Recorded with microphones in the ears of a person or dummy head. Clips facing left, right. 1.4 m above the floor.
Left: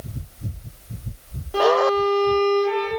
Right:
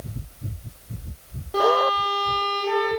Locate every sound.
1.5 s a violin: centre (ahead or behind), 0.6 m